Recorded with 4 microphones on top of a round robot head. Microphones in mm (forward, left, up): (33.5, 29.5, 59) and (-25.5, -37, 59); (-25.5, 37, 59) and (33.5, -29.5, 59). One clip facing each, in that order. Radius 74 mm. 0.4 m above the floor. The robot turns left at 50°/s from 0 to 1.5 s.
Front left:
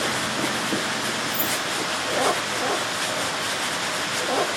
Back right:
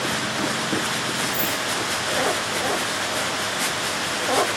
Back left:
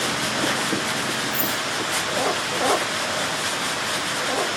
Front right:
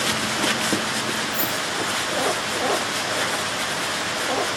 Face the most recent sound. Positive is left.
turn(degrees=65)